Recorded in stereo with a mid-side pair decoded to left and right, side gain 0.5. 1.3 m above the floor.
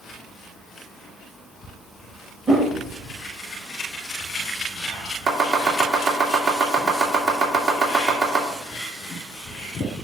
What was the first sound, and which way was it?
A whoosh, 35° right.